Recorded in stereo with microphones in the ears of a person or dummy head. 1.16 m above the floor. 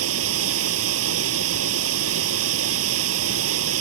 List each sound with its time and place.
0.0 s running water: 75° right (ahead or behind)